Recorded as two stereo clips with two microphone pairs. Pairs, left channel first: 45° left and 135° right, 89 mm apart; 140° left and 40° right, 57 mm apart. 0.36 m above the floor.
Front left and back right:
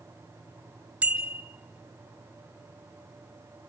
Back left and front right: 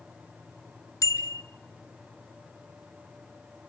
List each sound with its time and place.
1.0 s a bicycle bell: 150° left, 3 m